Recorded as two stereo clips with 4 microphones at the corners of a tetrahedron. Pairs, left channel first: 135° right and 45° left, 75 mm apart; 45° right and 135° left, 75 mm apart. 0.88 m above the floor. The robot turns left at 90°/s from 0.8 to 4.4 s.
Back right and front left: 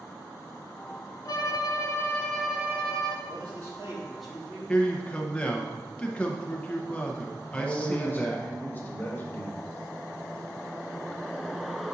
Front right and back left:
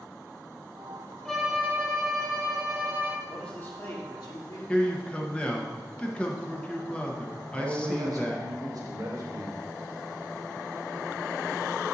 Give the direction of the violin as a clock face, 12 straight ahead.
4 o'clock.